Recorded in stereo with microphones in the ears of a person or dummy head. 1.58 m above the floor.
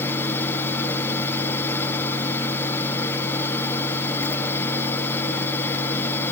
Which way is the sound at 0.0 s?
15° left (ahead or behind).